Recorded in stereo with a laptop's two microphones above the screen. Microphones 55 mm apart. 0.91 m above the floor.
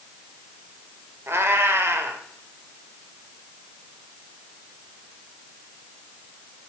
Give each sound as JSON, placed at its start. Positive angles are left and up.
{"t": 1.3, "sound": "a cat meowing", "side_deg": -50, "distance_m": 1.2}